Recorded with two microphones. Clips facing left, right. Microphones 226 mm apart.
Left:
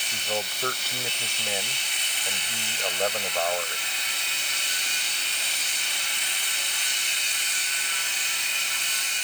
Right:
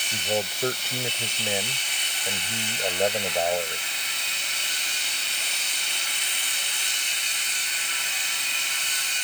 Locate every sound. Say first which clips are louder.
0.1 s a man speaking: right 4 dB; 20° right (ahead or behind)